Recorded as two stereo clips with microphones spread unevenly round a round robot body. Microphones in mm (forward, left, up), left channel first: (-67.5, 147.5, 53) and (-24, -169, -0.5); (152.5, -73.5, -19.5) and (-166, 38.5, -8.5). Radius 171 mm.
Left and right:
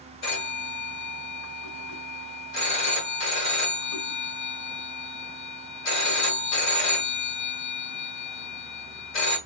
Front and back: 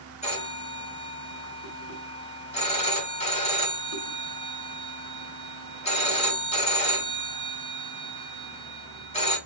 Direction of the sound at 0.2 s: 50° left.